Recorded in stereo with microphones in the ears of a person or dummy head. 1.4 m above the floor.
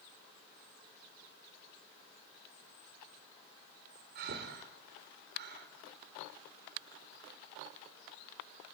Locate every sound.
4.2 s breathing: 60° right (ahead or behind), 3.5 m